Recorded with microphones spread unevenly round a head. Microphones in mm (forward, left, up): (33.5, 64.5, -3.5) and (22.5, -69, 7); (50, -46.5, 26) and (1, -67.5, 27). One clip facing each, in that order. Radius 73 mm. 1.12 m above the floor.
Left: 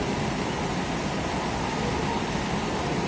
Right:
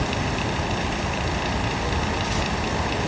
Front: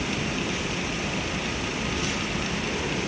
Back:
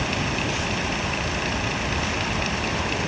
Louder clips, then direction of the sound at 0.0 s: Right 1 dB, back 3 dB; 125° right.